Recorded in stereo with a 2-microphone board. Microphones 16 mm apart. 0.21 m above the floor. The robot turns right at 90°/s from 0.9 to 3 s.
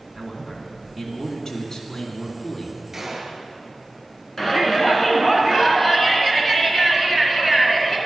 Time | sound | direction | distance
0.1 | a man speaking | 30° right | 2 m
2.9 | a gunshot | 20° right (ahead or behind) | 1.8 m
4.4 | a shout | 25° left (ahead or behind) | 2 m